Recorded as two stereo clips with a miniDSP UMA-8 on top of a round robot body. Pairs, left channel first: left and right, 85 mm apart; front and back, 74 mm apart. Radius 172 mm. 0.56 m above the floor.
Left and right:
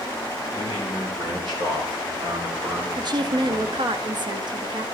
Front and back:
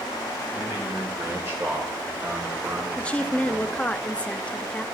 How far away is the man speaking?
About 4 m.